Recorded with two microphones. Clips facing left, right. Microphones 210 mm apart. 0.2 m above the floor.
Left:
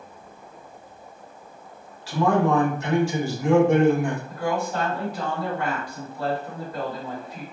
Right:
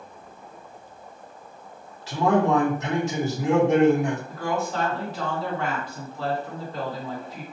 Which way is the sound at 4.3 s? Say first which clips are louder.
Left 1 dB; 10° left (ahead or behind).